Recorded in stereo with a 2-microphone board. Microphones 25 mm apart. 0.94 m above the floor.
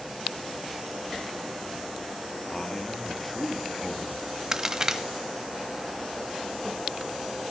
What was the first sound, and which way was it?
A man speaking, 30° left (ahead or behind).